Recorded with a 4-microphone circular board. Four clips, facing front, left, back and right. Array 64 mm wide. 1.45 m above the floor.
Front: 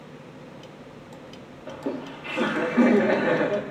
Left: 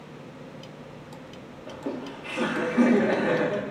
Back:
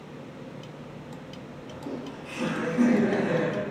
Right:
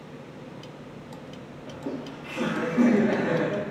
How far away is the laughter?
About 3 m.